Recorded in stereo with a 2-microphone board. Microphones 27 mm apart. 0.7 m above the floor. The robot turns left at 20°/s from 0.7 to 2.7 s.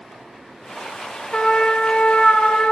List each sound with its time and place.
1.3 s a trumpet: 40° left (ahead or behind), 1.0 m; by 2.7 s 65° left (ahead or behind), 1.0 m